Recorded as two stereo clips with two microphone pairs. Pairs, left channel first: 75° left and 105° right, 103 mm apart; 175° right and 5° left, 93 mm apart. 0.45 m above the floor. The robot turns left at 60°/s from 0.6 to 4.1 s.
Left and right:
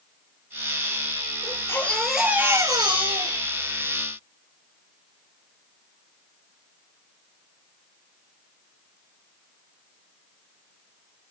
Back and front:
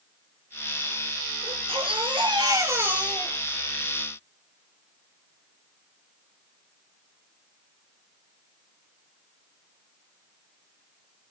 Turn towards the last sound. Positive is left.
turn(degrees=-135)